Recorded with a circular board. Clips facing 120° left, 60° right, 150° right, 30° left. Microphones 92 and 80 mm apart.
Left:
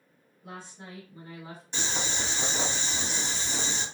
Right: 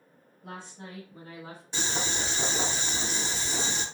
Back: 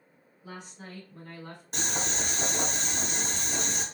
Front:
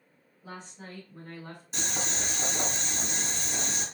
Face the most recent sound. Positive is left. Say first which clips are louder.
# right 1 dB, back 2 dB
turn(degrees=-140)